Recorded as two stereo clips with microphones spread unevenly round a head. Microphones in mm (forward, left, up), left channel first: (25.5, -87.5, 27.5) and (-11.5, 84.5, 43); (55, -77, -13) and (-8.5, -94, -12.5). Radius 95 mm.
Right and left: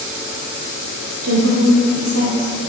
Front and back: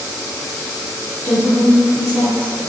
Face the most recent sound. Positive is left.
turn(degrees=85)